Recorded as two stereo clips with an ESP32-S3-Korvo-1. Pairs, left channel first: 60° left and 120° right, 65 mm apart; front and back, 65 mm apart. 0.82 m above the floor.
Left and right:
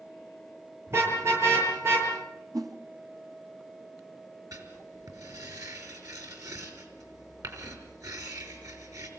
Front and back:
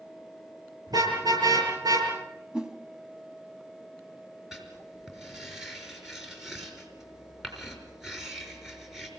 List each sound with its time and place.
0.9 s a car horn: 170° right, 9.5 m
2.5 s a whoosh: 100° right, 2 m
4.5 s writing: 95° right, 5 m